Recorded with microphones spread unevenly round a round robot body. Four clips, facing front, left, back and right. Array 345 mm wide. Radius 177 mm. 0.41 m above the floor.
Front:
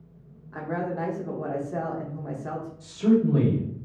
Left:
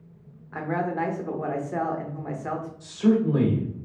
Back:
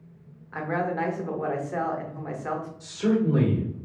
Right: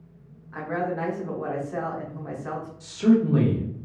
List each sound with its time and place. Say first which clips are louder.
0.5 s a woman speaking: left 1 dB, back 2 dB; 55° left, 0.8 m
2.8 s a man speaking: right 2 dB, front 3 dB; 95° right, 1.4 m